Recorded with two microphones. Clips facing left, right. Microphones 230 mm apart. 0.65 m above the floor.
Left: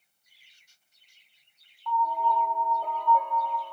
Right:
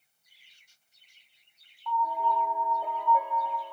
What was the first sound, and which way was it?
A piano, 5° right (ahead or behind).